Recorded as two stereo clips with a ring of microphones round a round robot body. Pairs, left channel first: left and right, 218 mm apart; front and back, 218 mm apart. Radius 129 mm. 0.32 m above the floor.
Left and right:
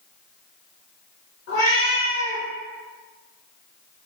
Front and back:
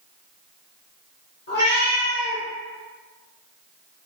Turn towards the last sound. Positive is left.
turn(degrees=50)